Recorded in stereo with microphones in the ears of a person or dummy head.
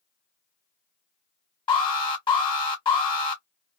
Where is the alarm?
20° left (ahead or behind), 1.4 m.